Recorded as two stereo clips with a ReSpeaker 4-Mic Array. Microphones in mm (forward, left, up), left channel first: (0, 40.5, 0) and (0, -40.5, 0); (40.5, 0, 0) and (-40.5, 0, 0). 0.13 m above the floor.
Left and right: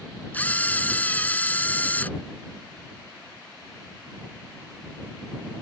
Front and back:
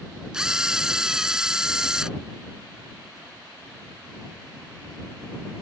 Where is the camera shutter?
110° left.